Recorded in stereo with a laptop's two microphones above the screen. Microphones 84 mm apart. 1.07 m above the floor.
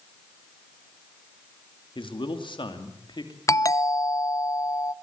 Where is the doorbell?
40° left (ahead or behind), 0.6 m.